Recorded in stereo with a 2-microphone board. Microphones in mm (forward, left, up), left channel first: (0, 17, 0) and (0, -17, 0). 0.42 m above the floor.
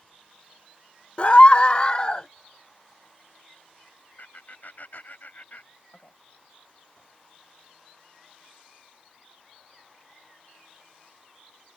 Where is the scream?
35° left (ahead or behind); by 2.3 s 25° left (ahead or behind).